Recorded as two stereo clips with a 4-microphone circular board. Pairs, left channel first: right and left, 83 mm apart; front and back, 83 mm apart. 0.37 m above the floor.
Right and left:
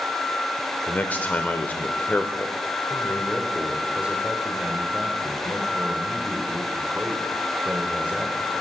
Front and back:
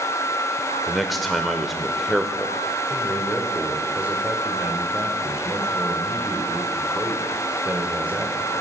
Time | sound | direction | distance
0.9 | a man speaking | 90° right | 0.8 m
2.9 | a man speaking | 140° left | 1.4 m